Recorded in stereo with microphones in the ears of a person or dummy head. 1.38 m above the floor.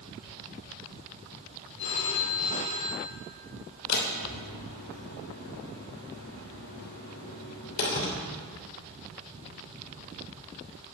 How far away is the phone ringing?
About 3 m.